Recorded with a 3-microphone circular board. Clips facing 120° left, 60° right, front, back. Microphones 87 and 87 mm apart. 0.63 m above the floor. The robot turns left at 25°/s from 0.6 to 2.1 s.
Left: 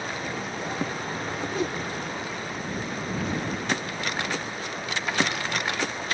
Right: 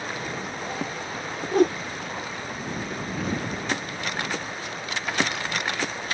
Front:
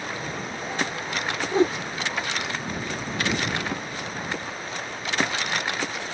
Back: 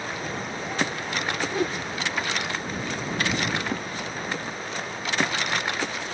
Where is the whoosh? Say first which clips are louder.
Right 11 dB, front 8 dB; 55° right; by 1.8 s 60° right.